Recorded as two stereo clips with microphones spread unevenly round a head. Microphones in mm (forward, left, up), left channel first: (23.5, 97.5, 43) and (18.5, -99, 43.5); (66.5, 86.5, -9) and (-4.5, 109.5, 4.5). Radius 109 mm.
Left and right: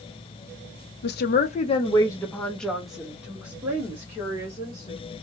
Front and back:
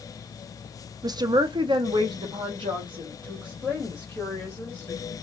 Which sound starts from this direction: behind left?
A woman speaking, at 1.0 s.